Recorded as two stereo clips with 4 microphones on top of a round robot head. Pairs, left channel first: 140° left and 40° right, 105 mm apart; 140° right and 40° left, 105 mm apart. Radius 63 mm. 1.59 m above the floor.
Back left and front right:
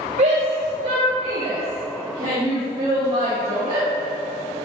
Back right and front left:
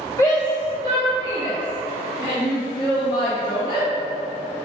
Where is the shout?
75° right, 1.9 m; by 3.9 s 100° right, 7 m.